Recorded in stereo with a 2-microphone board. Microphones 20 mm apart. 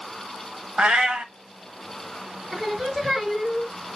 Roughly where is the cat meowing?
Right.